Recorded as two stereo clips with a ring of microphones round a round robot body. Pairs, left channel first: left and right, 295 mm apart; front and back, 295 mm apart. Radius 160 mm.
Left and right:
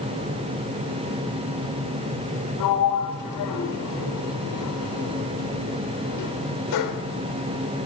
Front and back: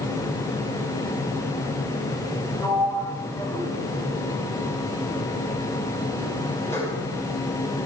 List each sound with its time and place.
2.6 s a sliding door: 80° left, 1.3 m